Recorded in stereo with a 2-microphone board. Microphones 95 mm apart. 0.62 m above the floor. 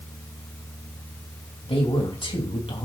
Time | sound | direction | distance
1.6 | a man speaking | 75° left (ahead or behind) | 4 m